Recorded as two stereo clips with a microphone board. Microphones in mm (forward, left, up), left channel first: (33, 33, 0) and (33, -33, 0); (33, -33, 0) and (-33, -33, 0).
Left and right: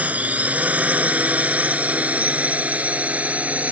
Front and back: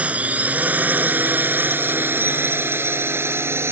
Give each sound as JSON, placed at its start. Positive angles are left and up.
{"t": 0.0, "sound": "a drone", "azimuth_deg": -135}